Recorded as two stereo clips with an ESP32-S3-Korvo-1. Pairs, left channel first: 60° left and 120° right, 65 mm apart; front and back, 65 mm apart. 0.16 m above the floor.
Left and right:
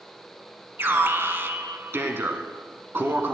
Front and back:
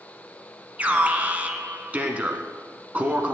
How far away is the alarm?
About 1.2 m.